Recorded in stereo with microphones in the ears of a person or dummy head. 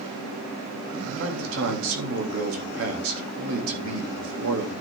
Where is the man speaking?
80° right, 3.5 m.